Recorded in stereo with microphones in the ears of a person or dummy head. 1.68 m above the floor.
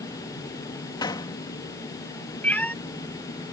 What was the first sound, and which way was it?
A gunshot, 25° left (ahead or behind).